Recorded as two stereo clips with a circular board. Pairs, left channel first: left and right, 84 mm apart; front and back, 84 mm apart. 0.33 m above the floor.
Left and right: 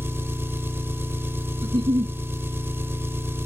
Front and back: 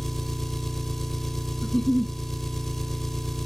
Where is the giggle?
80° right, 0.5 m.